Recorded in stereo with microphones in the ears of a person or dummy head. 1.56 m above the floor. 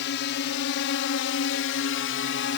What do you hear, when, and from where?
0.0 s a drone: 65° left (ahead or behind); by 2.6 s 55° left (ahead or behind)